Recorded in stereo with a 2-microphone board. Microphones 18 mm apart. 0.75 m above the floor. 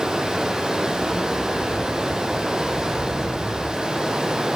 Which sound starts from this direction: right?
Running water, at 0.0 s.